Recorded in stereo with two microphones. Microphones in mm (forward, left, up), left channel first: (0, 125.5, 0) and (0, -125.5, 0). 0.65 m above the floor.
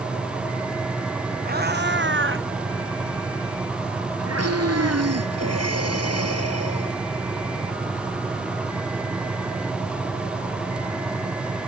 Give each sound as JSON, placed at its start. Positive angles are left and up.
{"t": 1.4, "sound": "a cat meowing", "side_deg": -40}
{"t": 4.4, "sound": "breathing", "side_deg": -85}